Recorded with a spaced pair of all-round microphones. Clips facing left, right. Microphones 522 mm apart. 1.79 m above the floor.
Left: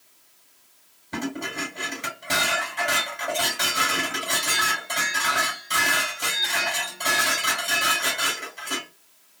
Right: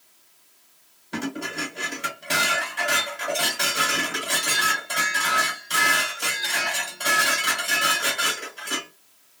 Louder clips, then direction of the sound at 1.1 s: Even; 30° left (ahead or behind).